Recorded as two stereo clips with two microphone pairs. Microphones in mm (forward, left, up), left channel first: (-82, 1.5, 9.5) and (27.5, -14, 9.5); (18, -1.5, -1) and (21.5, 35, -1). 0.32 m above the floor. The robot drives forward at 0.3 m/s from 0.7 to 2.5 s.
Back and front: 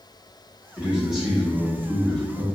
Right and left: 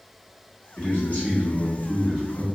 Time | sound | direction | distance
0.8 | a man speaking | 85° right | 1.2 m